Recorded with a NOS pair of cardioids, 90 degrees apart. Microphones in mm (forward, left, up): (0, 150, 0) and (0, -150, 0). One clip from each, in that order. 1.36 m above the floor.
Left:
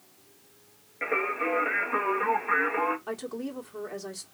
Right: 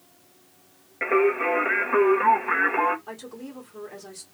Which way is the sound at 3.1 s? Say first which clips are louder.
Left 4 dB; 30° left.